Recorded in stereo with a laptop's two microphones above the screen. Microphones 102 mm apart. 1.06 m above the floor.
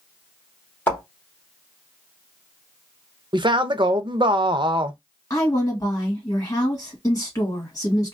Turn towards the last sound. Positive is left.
turn(degrees=30)  # may be behind; listen again after turning